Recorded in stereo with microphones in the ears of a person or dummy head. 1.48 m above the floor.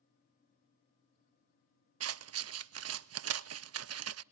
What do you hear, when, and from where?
2.0 s scissors: 80° right, 0.6 m